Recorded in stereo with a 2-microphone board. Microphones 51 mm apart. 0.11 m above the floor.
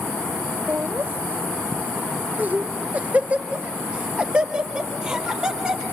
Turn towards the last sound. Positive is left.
turn(degrees=-15)  # may be behind; listen again after turning